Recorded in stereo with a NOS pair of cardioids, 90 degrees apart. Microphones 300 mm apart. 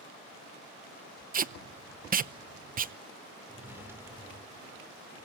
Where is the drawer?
10° right, 2 m.